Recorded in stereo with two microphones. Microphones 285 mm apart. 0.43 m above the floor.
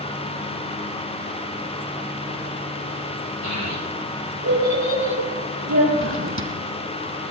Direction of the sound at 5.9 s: 45° right (ahead or behind).